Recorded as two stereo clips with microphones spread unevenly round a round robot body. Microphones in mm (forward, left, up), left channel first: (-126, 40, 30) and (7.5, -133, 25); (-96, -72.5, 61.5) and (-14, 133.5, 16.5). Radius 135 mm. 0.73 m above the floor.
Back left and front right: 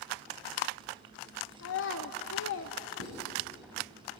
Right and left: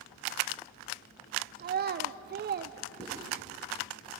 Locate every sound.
1.6 s a child speaking: 100° left, 0.7 m
3.0 s writing: 40° right, 7.5 m